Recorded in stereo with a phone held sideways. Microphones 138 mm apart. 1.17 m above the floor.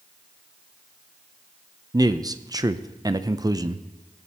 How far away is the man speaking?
About 0.6 m.